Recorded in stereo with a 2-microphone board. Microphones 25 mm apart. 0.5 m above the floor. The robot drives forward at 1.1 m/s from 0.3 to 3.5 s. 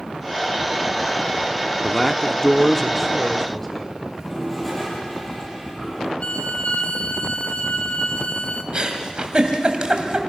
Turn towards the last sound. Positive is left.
turn(degrees=-35)  # may be behind; listen again after turning